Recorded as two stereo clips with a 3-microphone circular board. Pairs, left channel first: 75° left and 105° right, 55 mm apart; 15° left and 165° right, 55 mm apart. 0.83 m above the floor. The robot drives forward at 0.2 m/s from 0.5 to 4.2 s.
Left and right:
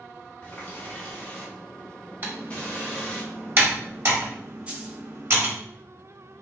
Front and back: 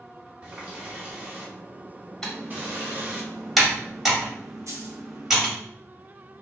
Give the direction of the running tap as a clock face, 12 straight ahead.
8 o'clock.